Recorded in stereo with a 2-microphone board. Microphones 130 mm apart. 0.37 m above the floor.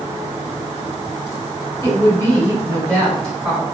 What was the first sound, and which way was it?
A woman speaking, 25° left (ahead or behind).